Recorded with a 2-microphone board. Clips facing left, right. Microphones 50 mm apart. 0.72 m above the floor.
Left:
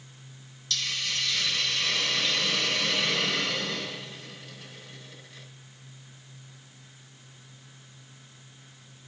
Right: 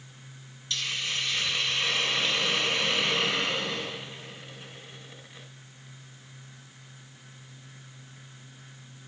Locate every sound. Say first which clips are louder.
0.7 s a hiss: even; 25° right (ahead or behind), 3 m